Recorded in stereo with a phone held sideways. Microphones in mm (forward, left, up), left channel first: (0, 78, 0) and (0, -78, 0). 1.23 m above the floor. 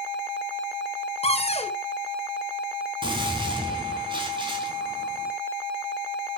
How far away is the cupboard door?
About 1.3 m.